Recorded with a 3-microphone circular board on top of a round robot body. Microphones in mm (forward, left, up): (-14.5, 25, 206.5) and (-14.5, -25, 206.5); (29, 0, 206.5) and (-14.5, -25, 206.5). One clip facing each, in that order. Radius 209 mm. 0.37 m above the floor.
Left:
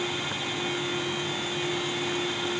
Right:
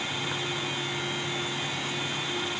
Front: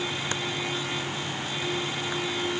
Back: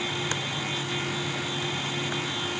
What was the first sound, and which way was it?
Only background noise.